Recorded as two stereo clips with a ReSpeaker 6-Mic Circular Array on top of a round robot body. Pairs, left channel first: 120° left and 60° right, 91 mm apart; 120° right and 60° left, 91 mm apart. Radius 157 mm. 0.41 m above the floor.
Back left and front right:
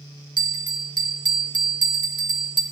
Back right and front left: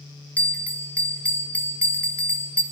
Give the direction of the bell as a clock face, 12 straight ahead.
2 o'clock.